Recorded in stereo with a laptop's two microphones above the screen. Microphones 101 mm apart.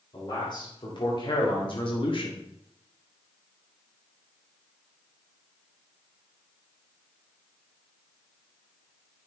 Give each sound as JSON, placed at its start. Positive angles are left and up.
{"t": 0.1, "sound": "a man speaking", "side_deg": 45, "distance_m": 3.0}